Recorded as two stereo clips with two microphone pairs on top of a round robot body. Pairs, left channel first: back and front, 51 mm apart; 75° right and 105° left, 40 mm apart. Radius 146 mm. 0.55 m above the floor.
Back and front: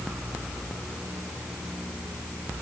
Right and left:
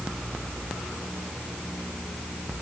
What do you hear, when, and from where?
Only background noise.